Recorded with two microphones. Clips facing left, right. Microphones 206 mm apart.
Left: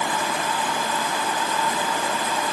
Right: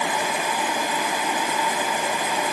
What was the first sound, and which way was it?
Only background noise.